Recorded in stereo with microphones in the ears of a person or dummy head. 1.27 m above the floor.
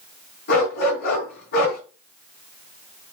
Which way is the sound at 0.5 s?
50° left (ahead or behind).